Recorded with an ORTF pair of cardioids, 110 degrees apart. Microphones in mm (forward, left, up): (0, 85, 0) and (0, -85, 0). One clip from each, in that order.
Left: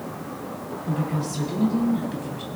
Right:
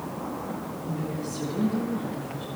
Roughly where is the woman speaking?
Ahead left.